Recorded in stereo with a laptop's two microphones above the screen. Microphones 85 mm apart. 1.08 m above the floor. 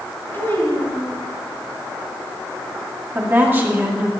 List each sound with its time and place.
0.3 s a child speaking: 30° left (ahead or behind), 4 m
3.1 s a woman speaking: 25° right (ahead or behind), 1.7 m